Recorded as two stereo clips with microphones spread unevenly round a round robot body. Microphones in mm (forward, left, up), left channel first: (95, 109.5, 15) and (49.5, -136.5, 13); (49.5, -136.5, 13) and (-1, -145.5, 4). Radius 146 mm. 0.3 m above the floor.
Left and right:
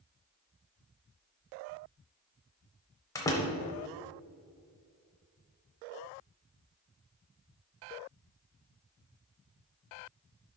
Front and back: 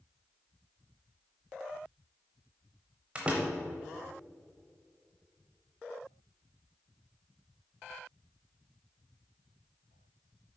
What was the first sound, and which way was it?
A door slam, 150° left.